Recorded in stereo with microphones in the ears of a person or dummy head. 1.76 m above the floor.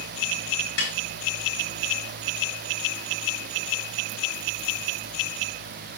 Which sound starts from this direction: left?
A snare drum, at 0.8 s.